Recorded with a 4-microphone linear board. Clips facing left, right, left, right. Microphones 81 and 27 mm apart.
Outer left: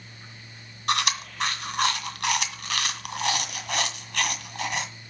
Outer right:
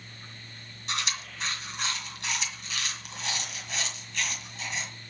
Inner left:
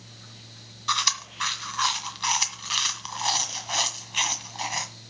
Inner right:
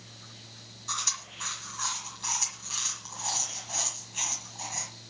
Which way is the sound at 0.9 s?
70° left (ahead or behind).